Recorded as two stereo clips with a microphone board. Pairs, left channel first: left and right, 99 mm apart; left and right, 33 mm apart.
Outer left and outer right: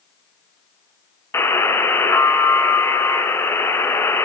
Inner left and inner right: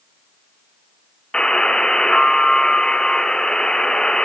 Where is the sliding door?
I don't hear a sliding door.